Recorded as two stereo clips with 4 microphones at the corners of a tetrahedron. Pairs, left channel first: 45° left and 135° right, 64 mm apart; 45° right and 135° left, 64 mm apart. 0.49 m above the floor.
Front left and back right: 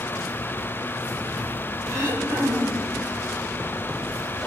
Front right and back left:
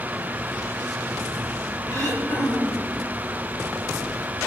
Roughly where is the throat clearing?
Right.